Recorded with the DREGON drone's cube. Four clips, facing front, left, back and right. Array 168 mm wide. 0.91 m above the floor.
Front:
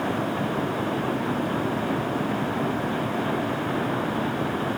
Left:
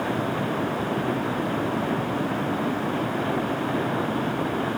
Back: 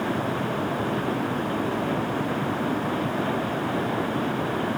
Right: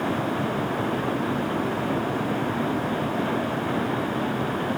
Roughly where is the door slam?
I don't hear a door slam.